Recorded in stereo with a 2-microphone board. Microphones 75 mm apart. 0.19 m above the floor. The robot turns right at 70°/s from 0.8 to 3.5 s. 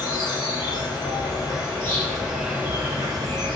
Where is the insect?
80° left, 1.4 m; by 3.6 s 90° right, 1.4 m.